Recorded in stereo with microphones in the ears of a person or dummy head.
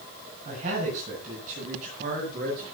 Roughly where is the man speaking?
Right.